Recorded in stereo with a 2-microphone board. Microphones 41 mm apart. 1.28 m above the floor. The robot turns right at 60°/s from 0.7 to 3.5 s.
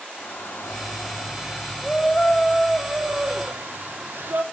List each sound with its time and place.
0.2 s a shout: 80° left, 3 m; by 4.4 s 110° right, 3 m